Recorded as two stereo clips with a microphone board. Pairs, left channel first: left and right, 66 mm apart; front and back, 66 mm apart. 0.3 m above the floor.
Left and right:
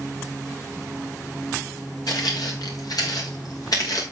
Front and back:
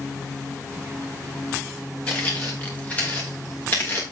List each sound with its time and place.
2.1 s footsteps: 70° left, 3 m; by 4.0 s 60° left, 4 m